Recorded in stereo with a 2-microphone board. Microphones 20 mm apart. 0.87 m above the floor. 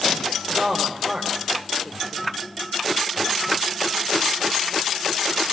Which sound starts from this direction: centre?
A woman speaking, at 0.5 s.